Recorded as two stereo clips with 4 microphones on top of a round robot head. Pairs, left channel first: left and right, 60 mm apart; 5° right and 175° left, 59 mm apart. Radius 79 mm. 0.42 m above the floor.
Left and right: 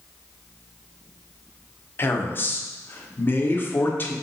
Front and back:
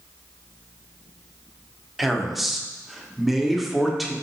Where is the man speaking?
90° left, 0.8 m.